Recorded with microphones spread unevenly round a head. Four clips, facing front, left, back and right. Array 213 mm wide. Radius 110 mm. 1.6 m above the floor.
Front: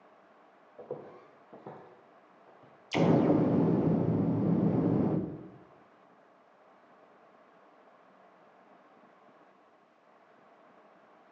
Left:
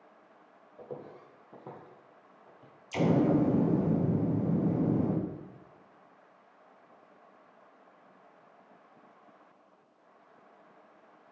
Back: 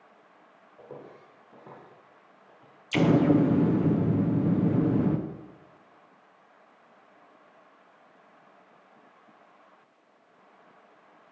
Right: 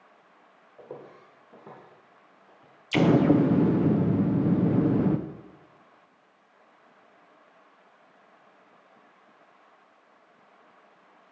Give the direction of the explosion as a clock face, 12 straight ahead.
3 o'clock.